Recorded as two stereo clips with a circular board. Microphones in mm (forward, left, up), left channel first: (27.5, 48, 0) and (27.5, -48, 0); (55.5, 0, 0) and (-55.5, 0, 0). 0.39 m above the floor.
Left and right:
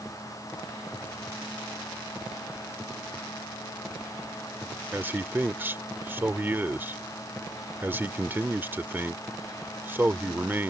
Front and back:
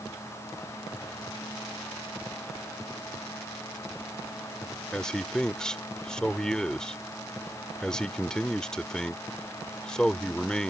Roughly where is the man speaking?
Right.